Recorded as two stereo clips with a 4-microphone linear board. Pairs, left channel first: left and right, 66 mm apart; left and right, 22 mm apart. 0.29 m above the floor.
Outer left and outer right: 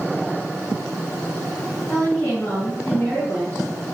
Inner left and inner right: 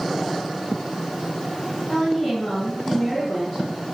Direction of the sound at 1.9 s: 35° left (ahead or behind).